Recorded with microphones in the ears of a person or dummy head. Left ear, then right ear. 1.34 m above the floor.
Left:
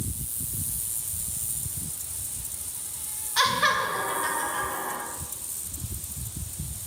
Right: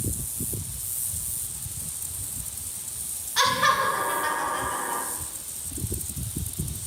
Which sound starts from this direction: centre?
Laughter, at 3.4 s.